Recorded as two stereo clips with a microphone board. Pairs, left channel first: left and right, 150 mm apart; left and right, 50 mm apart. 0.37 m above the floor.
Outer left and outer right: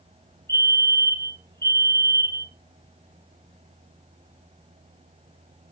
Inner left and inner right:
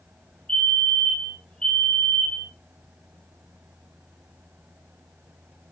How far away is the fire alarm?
About 3.5 m.